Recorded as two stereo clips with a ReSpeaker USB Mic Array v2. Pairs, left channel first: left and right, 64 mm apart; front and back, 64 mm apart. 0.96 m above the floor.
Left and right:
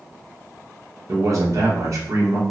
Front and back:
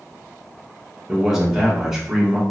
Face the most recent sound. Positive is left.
turn(degrees=-100)